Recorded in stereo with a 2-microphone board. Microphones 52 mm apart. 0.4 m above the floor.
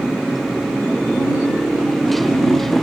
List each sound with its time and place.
0.0 s a motorcycle: centre (ahead or behind); by 2.8 s 5° left (ahead or behind)